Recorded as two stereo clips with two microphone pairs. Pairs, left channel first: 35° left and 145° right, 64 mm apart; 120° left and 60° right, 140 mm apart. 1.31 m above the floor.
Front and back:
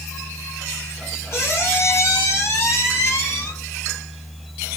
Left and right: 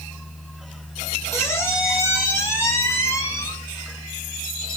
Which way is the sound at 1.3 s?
55° left.